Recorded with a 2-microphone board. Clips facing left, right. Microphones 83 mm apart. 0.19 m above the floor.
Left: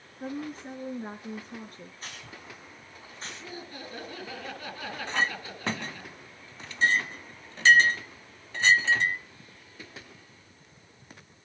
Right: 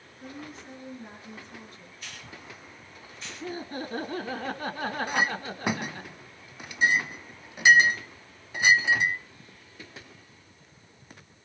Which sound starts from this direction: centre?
A clink, at 5.1 s.